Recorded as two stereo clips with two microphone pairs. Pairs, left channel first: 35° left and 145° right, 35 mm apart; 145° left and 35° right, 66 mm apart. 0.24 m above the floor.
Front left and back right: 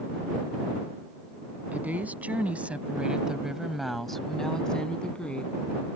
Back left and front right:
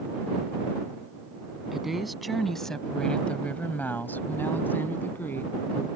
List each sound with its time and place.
1.7 s a woman speaking: 115° right; by 5.9 s 90° left